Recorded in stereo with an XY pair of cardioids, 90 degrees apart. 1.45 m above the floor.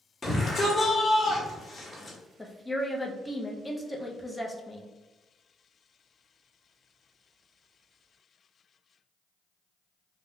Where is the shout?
30° left, 1.2 m.